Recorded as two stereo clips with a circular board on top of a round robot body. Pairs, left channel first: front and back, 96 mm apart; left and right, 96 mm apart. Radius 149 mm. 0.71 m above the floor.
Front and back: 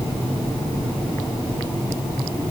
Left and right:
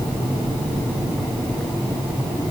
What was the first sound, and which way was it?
Only background noise.